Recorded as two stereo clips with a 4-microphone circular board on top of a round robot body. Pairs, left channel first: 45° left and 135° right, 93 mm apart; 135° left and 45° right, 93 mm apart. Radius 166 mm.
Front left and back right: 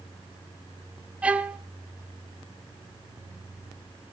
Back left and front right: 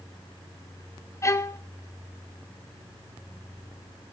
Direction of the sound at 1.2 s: 160° left.